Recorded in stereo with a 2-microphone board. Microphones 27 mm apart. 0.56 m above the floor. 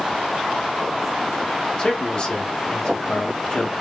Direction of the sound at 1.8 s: 30° left (ahead or behind).